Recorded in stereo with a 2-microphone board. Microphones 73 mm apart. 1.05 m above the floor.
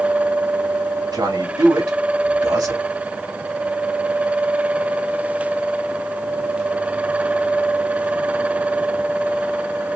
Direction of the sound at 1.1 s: 70° right (ahead or behind).